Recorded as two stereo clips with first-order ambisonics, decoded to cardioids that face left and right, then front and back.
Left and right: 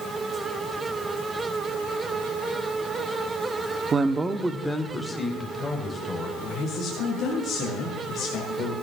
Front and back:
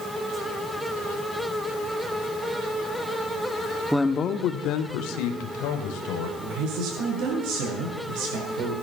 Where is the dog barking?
I don't hear a dog barking.